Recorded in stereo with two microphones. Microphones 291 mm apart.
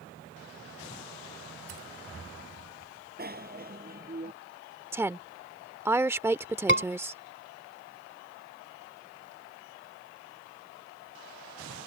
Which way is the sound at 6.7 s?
40° right (ahead or behind).